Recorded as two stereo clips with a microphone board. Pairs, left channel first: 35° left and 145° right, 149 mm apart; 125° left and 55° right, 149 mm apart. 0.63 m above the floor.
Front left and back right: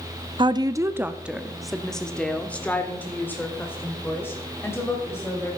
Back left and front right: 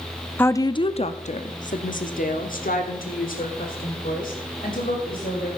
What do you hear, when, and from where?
0.4 s a woman speaking: 165° right, 0.6 m; by 5.5 s 105° left, 3 m